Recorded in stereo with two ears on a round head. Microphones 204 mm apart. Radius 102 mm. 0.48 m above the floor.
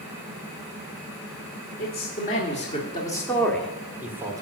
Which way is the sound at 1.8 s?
45° left (ahead or behind).